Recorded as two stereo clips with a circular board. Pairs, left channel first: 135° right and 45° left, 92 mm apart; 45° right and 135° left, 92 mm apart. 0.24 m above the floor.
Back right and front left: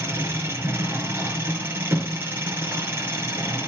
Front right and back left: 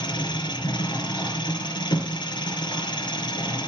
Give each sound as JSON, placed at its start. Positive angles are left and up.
{"t": 0.0, "sound": "an engine running", "azimuth_deg": -10, "distance_m": 2.5}